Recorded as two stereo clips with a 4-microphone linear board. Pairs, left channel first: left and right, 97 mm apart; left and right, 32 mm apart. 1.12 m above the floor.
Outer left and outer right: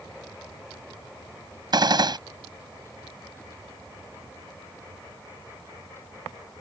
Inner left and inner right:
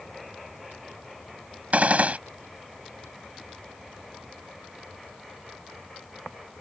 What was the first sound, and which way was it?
A gunshot, 50° right (ahead or behind).